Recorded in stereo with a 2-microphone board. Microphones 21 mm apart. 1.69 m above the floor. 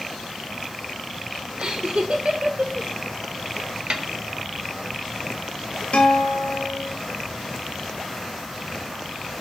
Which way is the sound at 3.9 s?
50° right (ahead or behind).